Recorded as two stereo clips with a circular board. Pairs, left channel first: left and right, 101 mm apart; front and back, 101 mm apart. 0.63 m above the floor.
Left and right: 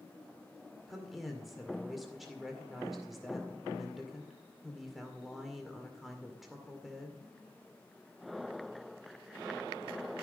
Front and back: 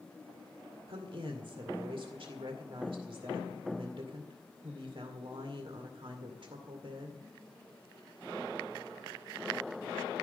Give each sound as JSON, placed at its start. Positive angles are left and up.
{"t": 0.9, "sound": "a woman speaking", "azimuth_deg": 180, "distance_m": 2.0}